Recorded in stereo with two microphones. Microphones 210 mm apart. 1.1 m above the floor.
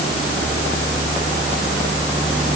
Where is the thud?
No thud in this recording.